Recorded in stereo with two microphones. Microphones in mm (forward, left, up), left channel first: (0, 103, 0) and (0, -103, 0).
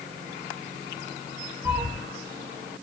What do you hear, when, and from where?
1.6 s a cat meowing: 10° right (ahead or behind), 4.5 m